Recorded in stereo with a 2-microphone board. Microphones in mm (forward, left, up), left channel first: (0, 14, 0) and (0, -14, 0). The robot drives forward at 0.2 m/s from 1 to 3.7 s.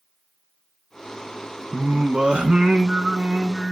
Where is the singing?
50° right (ahead or behind), 0.7 m; by 3.7 s 30° right (ahead or behind), 1.0 m.